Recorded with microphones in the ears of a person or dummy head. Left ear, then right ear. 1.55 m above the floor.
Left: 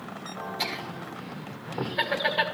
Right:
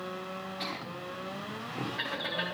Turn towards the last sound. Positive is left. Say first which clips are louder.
# left 7 dB
turn(degrees=30)  # may be behind; listen again after turning